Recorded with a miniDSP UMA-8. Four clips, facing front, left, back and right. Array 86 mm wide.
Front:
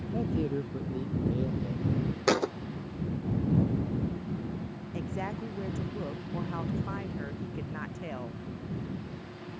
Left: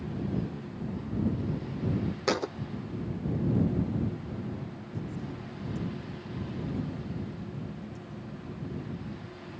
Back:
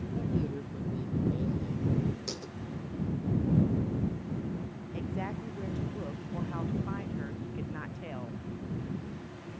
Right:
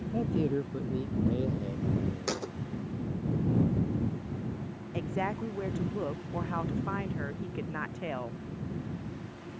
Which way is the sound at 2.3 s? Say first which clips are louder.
Left 6 dB, front 15 dB; 25° left.